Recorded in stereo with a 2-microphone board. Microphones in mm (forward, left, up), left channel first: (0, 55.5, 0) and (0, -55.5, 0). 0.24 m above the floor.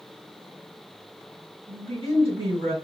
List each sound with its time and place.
1.7 s a woman speaking: 55° right (ahead or behind), 2.5 m